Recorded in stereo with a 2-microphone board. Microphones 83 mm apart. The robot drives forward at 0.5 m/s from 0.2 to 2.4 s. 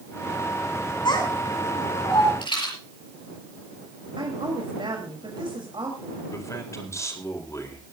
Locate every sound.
1.1 s a child speaking: 65° left (ahead or behind), 8 m; by 2.3 s 70° left (ahead or behind), 7.5 m
2.4 s a rattle: 75° left (ahead or behind), 6 m
4.2 s a woman speaking: 75° right (ahead or behind), 4 m
6.3 s a man speaking: 40° left (ahead or behind), 4 m